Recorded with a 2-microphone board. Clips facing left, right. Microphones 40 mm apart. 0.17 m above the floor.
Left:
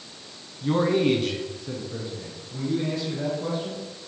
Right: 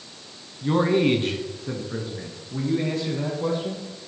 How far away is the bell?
I don't hear a bell.